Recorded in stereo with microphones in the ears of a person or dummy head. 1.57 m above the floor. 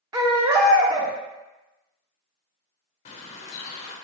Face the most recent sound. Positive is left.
turn(degrees=40)  # may be behind; listen again after turning